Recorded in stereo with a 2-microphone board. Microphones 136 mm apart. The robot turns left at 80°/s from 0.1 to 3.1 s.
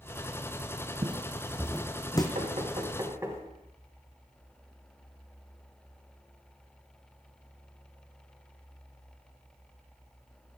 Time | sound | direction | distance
1.0 | footsteps | 35° right (ahead or behind) | 0.7 m
2.4 | knocking | 70° right (ahead or behind) | 3 m